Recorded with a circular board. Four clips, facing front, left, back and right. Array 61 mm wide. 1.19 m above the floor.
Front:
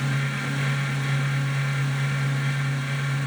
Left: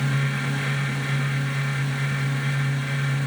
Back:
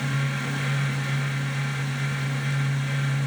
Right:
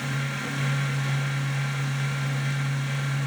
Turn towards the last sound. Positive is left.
No sound to turn to.